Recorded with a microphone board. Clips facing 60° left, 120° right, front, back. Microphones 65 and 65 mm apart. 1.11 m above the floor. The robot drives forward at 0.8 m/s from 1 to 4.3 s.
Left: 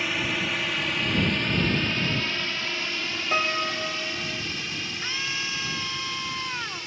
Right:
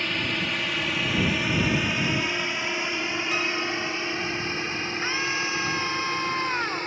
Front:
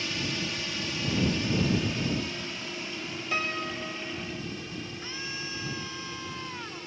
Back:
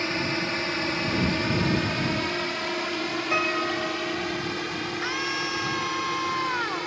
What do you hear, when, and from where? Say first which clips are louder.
0.0 s a drone: even, back 6 dB; 140° left; by 6.9 s 165° right
3.3 s a piano: left 5 dB, back 5 dB; 115° left; by 4.4 s 125° left
5.0 s a scream: right 5 dB, back 10 dB; 175° left